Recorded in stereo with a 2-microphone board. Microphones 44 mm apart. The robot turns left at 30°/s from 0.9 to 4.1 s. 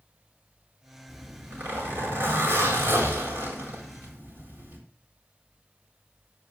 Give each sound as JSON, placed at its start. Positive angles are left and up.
{"t": 1.1, "sound": "a zipper", "azimuth_deg": -45, "distance_m": 7.0}